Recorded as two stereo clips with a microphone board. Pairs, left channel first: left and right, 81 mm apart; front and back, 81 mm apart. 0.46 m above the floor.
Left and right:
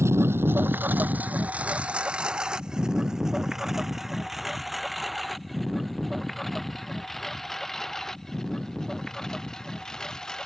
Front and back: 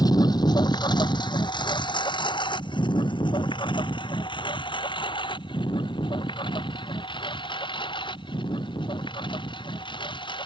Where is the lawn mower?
35° right; by 10.4 s 5° left.